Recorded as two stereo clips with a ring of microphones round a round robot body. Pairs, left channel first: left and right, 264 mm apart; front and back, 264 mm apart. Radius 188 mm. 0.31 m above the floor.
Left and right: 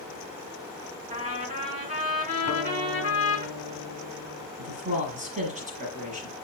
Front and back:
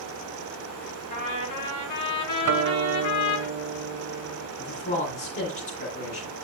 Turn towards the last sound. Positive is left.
turn(degrees=-30)